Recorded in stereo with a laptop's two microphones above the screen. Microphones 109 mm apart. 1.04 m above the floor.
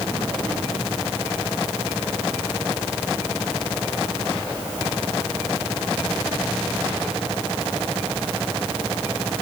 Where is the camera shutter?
No camera shutter in this recording.